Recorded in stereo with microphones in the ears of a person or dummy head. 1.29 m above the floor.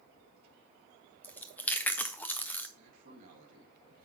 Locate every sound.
1.2 s chewing: 10° left (ahead or behind), 0.6 m
2.8 s a man speaking: 45° right (ahead or behind), 1.9 m